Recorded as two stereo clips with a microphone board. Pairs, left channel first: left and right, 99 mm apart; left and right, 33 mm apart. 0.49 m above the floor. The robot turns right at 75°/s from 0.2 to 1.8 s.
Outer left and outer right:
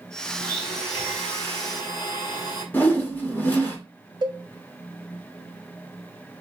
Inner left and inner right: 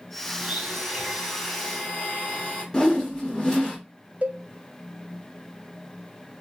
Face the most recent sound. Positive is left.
turn(degrees=-50)  # may be behind; listen again after turning